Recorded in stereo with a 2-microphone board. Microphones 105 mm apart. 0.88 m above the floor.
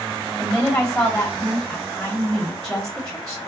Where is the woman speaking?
5° left (ahead or behind), 1.5 m.